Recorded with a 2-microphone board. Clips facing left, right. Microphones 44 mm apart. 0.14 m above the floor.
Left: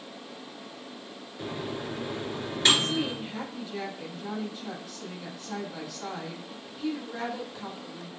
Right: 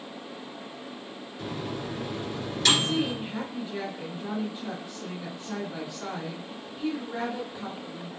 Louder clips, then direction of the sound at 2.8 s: Right 2 dB; 20° right (ahead or behind).